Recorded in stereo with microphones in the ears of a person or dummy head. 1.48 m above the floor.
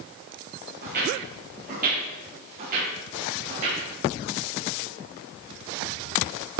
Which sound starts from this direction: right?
Footsteps, at 0.8 s.